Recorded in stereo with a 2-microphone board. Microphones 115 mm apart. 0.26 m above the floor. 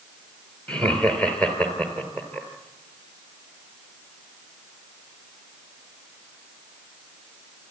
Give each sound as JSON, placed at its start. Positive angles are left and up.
{"t": 0.7, "sound": "laughter", "side_deg": 10, "distance_m": 4.0}